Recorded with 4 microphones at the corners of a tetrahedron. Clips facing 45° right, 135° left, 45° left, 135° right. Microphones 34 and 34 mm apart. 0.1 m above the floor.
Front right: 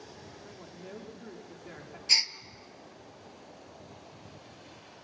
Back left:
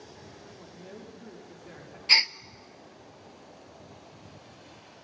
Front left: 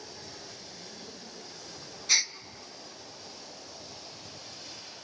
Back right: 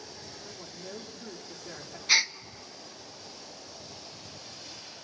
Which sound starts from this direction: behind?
A gasp, at 2.1 s.